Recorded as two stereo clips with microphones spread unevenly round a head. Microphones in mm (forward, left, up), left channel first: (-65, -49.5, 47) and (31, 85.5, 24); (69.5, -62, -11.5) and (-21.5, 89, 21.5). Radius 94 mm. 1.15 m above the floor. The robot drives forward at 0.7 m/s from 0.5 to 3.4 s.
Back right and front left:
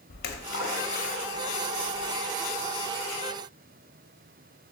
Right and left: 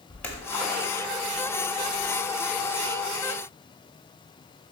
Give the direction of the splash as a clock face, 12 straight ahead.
5 o'clock.